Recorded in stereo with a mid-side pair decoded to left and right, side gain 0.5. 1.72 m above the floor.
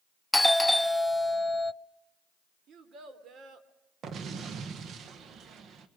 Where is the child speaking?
55° right, 3 m.